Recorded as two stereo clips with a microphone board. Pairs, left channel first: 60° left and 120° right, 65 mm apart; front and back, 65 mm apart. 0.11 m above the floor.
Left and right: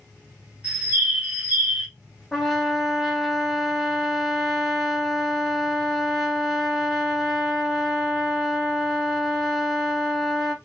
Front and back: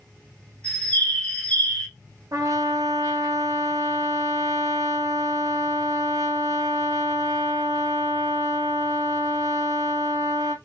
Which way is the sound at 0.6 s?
60° right.